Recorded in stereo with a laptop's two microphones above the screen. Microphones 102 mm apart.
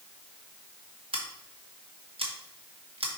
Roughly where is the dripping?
No dripping in this recording.